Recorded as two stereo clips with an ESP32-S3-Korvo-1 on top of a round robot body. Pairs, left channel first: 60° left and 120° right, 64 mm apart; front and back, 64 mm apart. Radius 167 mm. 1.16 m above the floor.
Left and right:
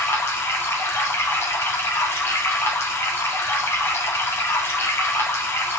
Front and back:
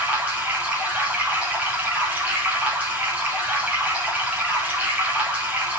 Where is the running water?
110° left, 1.8 m.